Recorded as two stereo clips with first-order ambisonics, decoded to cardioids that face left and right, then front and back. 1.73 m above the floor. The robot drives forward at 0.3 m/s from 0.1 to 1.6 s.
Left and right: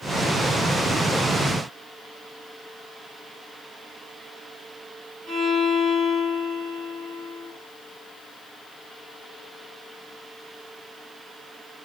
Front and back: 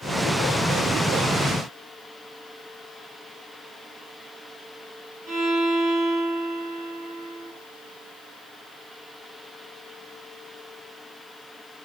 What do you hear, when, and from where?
5.3 s a violin: 155° right, 1.5 m